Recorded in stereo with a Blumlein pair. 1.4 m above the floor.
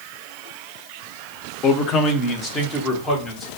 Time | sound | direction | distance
1.6 | a man speaking | 30° left | 0.5 m